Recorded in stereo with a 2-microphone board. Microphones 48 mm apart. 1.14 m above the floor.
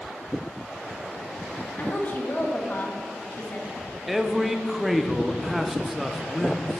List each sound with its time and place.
1.8 s a woman speaking: 40° left (ahead or behind), 1.5 m
4.1 s a man speaking: centre (ahead or behind), 0.7 m